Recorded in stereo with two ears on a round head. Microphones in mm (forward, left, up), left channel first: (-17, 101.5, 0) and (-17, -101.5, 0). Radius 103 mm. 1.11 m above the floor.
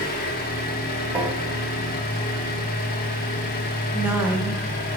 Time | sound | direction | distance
0.0 | an engine running | 45° left (ahead or behind) | 1.0 m
1.1 | tapping | 5° right (ahead or behind) | 1.3 m
3.9 | a woman speaking | 10° right (ahead or behind) | 1.0 m